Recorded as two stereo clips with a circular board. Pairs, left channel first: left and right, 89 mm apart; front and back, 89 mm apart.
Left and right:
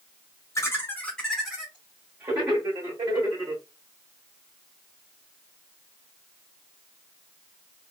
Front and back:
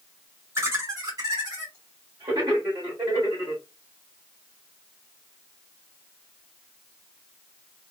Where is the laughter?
130° left, 0.9 m; by 3.6 s 125° right, 1.7 m.